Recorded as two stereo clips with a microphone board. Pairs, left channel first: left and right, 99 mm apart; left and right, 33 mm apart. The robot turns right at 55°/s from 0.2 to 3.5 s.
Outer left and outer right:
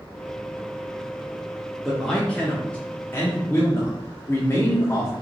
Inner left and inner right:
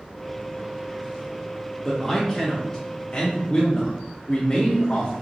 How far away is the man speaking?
About 0.7 m.